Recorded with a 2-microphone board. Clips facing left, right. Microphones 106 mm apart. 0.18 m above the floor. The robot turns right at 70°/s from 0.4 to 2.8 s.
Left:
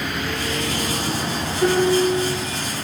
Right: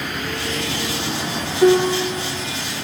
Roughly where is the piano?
Behind right.